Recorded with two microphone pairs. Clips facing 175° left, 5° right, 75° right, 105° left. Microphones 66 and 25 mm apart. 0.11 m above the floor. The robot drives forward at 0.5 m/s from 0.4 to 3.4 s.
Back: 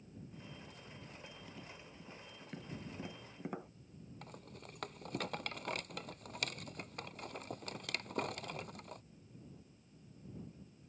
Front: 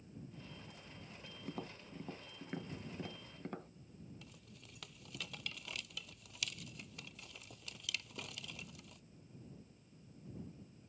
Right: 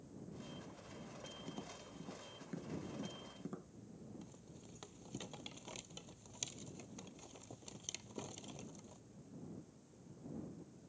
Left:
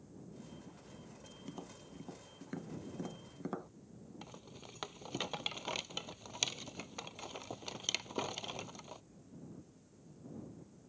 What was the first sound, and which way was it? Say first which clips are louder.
Tapping: front 5 dB, left 1 dB; 25° left.